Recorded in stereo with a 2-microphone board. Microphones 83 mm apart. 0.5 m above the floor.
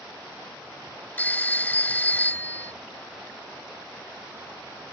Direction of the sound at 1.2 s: 25° left (ahead or behind).